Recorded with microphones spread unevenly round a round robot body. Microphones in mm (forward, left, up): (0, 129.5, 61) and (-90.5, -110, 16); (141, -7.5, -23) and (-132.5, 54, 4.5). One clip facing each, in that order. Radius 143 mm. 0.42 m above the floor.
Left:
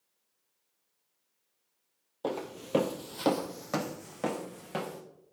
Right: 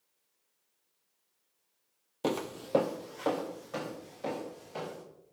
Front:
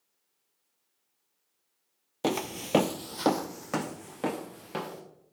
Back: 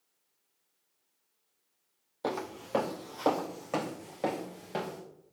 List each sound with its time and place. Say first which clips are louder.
2.2 s footsteps: right 2 dB, front 5 dB; 50° right, 0.6 m; by 5.0 s 60° left, 2.5 m